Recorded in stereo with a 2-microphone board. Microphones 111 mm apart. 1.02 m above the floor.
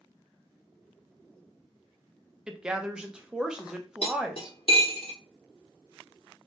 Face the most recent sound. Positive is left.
turn(degrees=60)  # may be behind; listen again after turning